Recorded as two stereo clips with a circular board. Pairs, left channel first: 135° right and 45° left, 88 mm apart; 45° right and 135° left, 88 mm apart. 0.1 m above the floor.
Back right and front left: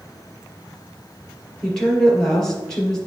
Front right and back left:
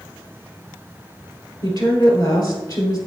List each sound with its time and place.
1.6 s a woman speaking: 55° right, 2 m